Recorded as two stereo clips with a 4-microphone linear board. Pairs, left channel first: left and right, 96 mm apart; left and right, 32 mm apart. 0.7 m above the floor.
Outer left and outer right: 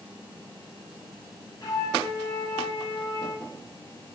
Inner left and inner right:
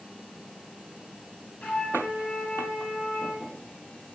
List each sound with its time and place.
1.6 s a flute: 40° left (ahead or behind), 5.5 m